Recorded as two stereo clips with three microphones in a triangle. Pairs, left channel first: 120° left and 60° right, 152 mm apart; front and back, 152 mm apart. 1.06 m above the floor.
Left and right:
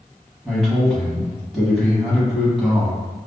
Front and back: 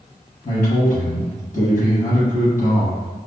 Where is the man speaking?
25° left, 1.0 m.